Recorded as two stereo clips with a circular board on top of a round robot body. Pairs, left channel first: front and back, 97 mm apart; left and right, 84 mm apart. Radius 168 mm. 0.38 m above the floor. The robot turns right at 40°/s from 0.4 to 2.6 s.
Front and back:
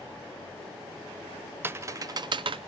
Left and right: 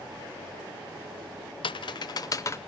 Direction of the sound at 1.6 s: 110° left.